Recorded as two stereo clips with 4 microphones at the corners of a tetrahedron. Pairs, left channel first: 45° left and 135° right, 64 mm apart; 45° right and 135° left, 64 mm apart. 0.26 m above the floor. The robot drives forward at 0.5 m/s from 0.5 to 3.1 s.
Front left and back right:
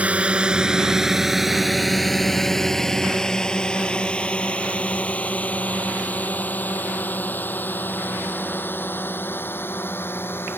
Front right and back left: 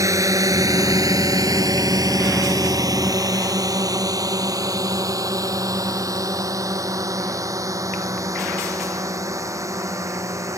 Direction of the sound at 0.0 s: 160° left.